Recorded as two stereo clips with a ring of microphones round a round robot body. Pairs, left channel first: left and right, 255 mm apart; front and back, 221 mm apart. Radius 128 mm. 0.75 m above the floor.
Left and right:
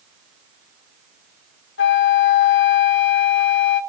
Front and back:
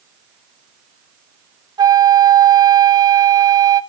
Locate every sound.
1.8 s a flute: 115° left, 1.2 m